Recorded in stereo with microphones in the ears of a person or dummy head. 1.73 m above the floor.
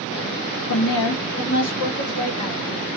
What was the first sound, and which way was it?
A woman speaking, 75° left (ahead or behind).